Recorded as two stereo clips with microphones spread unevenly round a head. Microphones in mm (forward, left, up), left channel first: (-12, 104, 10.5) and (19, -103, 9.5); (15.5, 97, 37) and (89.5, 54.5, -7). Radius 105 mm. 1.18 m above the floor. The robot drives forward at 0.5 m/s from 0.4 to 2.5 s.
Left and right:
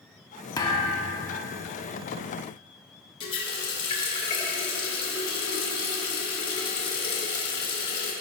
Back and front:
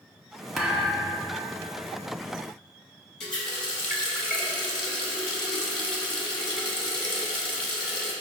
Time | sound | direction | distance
0.6 | a thud | 150° left | 0.7 m
3.2 | a running tap | 165° left | 1.5 m